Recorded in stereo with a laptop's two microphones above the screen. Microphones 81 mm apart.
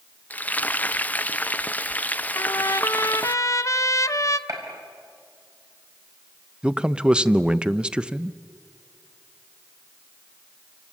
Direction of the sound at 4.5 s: 45° right (ahead or behind).